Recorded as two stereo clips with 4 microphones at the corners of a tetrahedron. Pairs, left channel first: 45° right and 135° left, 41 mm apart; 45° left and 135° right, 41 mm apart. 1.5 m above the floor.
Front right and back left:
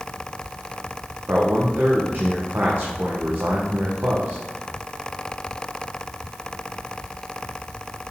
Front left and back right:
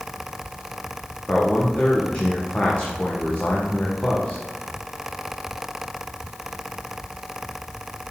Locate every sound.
1.3 s a man speaking: 105° left, 1.0 m